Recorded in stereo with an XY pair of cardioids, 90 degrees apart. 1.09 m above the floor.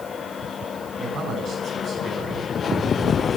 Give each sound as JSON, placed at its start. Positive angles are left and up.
{"t": 1.0, "sound": "a man speaking", "azimuth_deg": -70, "distance_m": 5.5}